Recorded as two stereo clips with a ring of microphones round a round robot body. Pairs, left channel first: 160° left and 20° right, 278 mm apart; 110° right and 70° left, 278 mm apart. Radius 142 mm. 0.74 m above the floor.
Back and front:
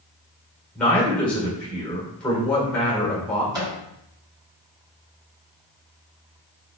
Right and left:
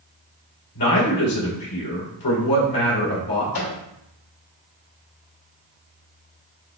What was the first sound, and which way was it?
A man speaking, 115° right.